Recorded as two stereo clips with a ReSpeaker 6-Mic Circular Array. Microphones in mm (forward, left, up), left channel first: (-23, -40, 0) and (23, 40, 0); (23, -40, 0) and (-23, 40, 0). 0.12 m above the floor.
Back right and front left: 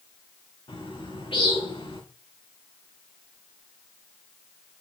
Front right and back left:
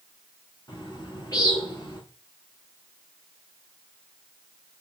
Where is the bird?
105° right, 6 m.